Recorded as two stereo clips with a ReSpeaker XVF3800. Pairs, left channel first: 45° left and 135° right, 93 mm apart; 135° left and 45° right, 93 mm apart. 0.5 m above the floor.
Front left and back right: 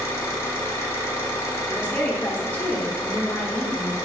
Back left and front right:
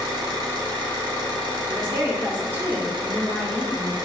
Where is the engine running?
15° right, 0.8 m.